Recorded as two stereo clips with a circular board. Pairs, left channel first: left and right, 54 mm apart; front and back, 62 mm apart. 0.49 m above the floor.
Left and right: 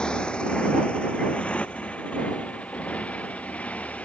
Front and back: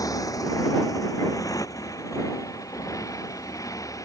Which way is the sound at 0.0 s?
15° left.